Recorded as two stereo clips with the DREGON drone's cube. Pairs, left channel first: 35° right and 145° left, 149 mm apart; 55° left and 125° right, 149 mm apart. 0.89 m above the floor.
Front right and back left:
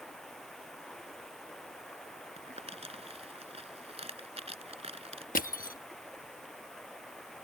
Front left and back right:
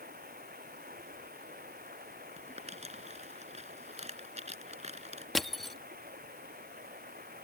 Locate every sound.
0.0 s running water: 120° right
2.4 s crumpling: 165° right
5.3 s crushing: 35° right